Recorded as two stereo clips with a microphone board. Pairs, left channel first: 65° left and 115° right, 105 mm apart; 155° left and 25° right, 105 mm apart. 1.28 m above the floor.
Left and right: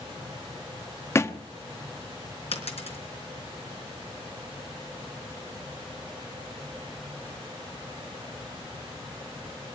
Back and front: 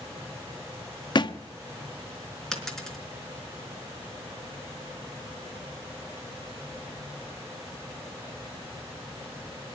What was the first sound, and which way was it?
A thud, 125° left.